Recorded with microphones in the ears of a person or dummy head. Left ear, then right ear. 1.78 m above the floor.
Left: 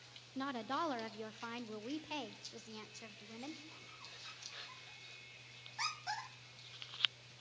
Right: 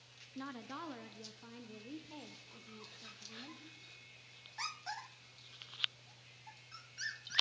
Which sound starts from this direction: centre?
A woman speaking, at 0.3 s.